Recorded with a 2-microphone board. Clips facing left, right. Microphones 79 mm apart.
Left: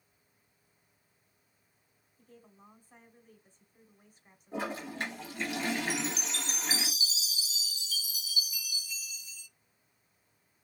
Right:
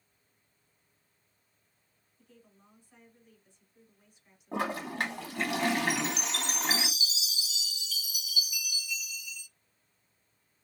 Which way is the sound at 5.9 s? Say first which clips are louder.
Right 3 dB; 35° left (ahead or behind).